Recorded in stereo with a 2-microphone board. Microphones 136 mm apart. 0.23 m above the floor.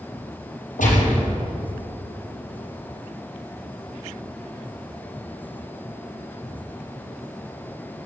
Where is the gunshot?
80° left, 4 m.